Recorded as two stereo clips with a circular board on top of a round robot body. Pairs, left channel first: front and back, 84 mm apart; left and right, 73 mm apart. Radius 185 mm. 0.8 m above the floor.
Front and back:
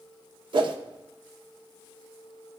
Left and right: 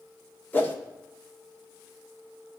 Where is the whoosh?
155° left, 0.8 m.